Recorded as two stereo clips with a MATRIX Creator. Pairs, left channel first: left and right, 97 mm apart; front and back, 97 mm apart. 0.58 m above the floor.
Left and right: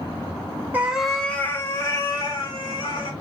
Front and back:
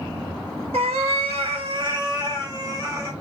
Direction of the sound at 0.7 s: 160° right.